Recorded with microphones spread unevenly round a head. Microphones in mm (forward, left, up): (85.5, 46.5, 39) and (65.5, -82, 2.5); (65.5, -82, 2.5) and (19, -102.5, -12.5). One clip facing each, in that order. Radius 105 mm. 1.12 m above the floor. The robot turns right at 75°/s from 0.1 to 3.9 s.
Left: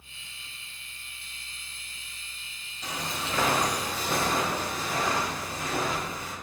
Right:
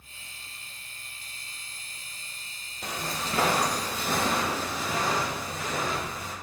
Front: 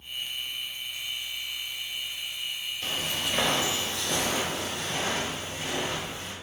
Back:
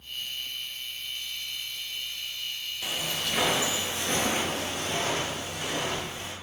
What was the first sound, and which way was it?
Footsteps, 70° right.